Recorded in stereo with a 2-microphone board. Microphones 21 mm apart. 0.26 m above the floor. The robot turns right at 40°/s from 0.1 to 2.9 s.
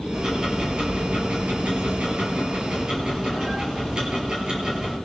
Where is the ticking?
150° right, 5.5 m; by 5.0 s 40° right, 5.5 m.